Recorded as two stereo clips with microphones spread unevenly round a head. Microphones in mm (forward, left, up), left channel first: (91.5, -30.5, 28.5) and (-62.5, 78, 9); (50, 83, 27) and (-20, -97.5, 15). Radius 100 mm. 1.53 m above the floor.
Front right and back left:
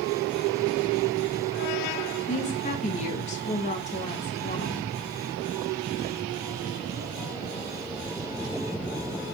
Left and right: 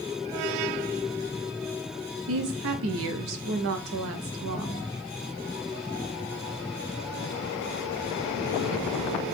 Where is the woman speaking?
95° right, 0.9 m.